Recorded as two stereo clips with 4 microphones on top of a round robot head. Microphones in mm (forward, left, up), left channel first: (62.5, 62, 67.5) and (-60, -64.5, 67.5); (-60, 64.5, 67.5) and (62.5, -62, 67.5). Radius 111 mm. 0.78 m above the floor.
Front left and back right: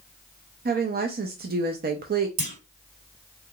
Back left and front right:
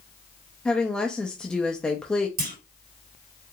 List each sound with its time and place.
0.7 s a woman speaking: 140° right, 0.7 m
2.4 s a clunk: 85° right, 2 m